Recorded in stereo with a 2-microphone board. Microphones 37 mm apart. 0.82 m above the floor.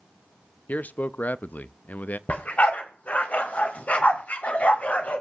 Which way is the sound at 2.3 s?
50° left (ahead or behind).